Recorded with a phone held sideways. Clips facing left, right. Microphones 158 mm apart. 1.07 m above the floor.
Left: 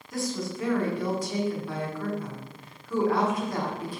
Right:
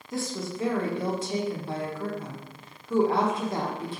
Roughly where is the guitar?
I don't hear a guitar.